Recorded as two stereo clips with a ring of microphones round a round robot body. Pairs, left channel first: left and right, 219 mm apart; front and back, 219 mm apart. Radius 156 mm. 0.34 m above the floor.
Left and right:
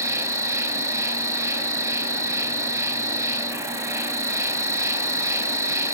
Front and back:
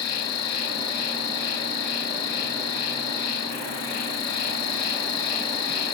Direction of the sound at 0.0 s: 10° right.